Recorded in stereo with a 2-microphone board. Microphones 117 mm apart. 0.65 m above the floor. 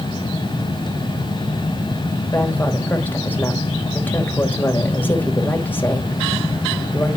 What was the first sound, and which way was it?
A woman speaking, 15° left (ahead or behind).